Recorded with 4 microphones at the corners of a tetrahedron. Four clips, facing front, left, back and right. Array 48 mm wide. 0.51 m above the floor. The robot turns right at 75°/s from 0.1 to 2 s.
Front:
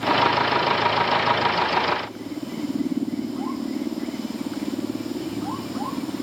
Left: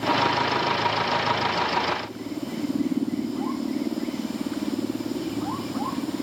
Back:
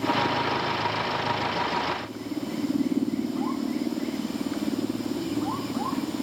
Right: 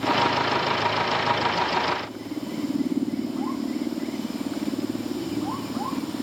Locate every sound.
Only background noise.